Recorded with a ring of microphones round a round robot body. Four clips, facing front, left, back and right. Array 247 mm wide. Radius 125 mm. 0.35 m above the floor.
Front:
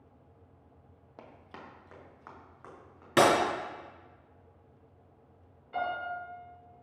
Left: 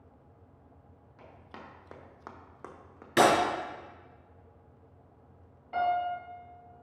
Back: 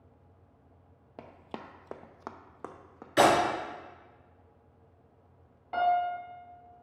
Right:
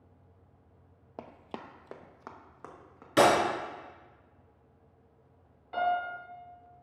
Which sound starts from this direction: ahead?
Breaking glass, at 3.2 s.